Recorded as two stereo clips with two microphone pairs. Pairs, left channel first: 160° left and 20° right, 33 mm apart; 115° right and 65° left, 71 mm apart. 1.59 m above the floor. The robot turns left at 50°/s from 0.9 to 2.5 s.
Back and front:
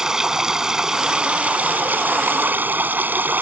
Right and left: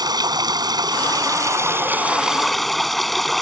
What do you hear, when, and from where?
0.0 s running water: 55° left; by 3.4 s 25° right